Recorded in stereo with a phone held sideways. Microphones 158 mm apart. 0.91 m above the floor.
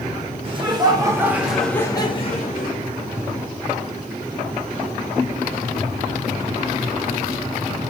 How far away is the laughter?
About 1.6 m.